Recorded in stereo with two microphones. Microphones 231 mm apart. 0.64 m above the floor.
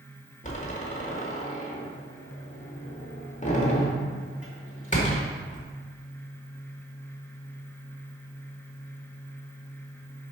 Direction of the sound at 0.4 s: 30° left (ahead or behind).